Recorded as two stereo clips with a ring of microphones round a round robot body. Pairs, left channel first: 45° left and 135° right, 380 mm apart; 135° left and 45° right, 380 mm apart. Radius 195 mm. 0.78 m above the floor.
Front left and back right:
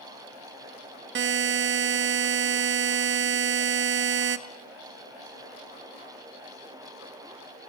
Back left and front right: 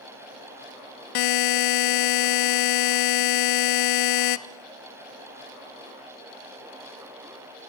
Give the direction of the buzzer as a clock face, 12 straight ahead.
7 o'clock.